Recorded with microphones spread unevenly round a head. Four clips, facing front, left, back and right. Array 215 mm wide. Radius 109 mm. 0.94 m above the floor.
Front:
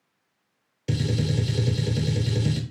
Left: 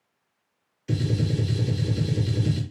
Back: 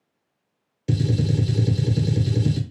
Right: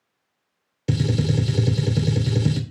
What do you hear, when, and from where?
0.9 s a gunshot: 85° right, 0.7 m